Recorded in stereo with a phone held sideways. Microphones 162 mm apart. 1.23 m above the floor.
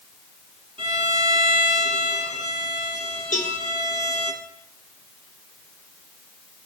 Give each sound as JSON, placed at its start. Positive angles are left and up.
{"t": 0.8, "sound": "a violin", "side_deg": -35, "distance_m": 1.5}
{"t": 3.3, "sound": "a cowbell", "side_deg": 55, "distance_m": 0.9}